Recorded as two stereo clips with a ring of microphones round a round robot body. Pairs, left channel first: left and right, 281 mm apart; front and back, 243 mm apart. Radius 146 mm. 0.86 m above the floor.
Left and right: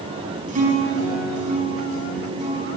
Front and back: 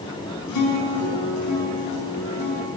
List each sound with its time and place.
0.5 s a guitar: 25° right, 4.5 m